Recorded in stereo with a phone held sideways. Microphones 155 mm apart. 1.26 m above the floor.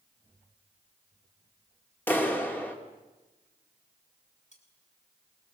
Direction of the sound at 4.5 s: 50° left (ahead or behind).